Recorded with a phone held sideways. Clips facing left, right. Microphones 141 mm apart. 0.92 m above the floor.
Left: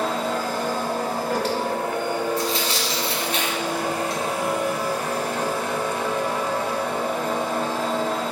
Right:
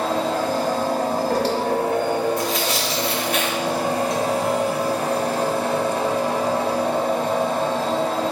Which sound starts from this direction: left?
Tearing paper, at 2.4 s.